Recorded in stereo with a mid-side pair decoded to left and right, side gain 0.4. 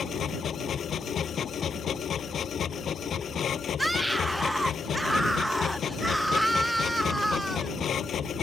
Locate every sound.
0.0 s a machine running: 60° left
3.8 s a scream: 5° right